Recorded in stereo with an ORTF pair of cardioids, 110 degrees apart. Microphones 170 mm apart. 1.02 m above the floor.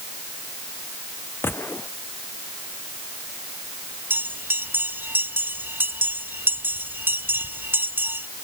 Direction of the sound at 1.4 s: 15° left.